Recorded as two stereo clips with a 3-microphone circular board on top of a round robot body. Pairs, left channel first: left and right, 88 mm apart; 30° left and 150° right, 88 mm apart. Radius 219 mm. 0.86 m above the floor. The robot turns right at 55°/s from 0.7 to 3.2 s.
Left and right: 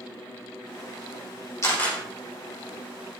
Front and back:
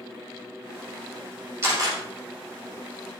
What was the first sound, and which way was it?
A camera shutter, 150° left.